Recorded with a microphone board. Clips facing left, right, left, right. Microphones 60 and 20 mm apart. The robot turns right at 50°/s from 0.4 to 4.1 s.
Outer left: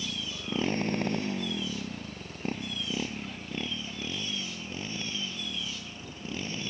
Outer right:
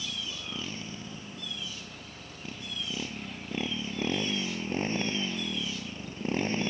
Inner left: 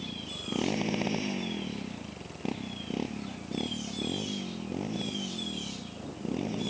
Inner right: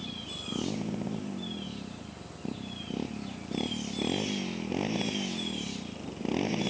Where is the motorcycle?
35° left; by 6.7 s 140° right.